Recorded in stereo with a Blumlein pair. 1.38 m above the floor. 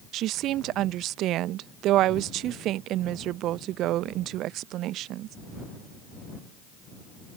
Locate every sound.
0.1 s a woman speaking: 35° right